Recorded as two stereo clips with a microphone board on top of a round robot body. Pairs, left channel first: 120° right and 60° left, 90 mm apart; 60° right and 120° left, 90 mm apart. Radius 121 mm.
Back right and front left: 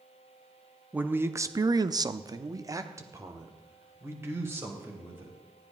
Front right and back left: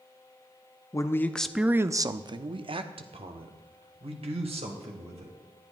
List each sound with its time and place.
0.9 s a man speaking: 10° right, 0.9 m; by 5.4 s 125° left, 3.5 m